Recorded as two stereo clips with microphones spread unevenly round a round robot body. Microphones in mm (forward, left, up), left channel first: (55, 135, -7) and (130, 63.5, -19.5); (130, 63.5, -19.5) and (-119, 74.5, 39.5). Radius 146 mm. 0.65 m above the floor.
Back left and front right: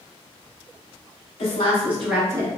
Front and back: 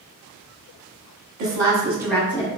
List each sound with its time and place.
1.4 s a woman speaking: 145° left, 0.9 m; by 2.5 s 25° right, 0.8 m